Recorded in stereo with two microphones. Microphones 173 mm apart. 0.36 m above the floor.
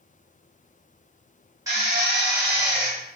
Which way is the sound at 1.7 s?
20° right (ahead or behind).